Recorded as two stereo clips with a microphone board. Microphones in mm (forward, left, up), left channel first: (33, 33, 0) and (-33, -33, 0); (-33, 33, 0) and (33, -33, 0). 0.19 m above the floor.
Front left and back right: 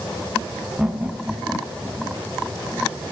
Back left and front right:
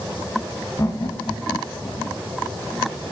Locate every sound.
0.8 s laughter: 150° left, 1.3 m; by 2.2 s 155° left, 1.8 m